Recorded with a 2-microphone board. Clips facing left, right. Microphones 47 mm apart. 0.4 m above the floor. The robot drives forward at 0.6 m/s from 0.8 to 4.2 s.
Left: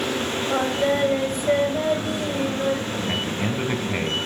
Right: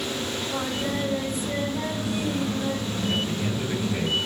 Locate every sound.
0.5 s singing: 60° left (ahead or behind), 9.5 m; by 3.0 s 55° left (ahead or behind), 10 m
3.1 s a man speaking: 60° left (ahead or behind), 3.5 m; by 4.2 s 50° left (ahead or behind), 3.5 m